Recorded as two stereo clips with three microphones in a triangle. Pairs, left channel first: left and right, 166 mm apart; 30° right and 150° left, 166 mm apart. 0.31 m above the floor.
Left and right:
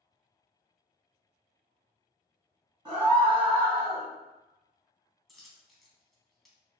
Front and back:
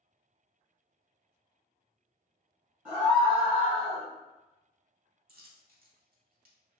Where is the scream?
135° right, 1.9 m.